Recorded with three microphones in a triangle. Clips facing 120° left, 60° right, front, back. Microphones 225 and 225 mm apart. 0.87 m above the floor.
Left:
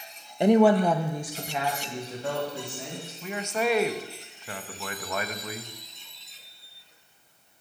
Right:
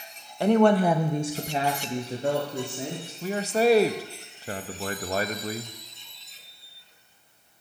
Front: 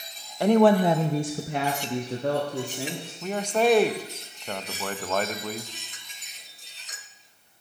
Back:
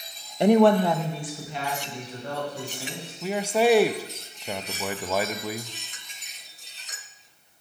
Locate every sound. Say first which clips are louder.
0.4 s a woman speaking: left 1 dB, back 1 dB; 155° left, 0.6 m; by 3.1 s 10° right, 2 m
3.2 s a man speaking: right 6 dB, back 1 dB; 100° right, 0.6 m